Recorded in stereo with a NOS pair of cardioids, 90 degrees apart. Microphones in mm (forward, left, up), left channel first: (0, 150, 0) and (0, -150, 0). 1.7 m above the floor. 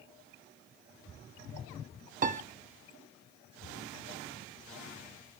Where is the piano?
25° right, 0.6 m.